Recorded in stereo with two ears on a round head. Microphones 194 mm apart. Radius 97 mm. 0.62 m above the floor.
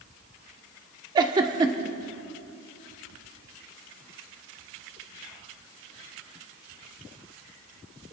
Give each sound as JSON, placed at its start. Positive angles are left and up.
{"t": 1.1, "sound": "a giggle", "side_deg": -20, "distance_m": 1.3}